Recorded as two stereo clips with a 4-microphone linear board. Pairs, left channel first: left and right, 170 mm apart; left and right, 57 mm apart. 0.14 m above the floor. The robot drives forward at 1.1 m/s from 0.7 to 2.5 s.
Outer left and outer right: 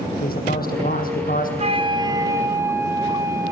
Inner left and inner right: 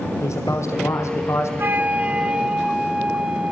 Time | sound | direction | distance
0.2 | a man speaking | 60° left (ahead or behind) | 5.5 m
1.6 | a flute | 40° right (ahead or behind) | 0.7 m